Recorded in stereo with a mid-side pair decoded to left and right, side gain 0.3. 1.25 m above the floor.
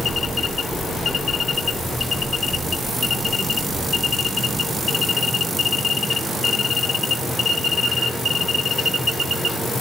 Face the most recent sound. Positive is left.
No sound to turn to.